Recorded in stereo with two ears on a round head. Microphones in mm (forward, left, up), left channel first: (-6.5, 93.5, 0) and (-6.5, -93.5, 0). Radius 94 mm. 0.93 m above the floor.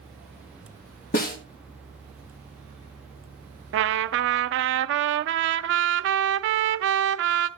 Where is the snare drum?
45° left (ahead or behind), 1.4 m.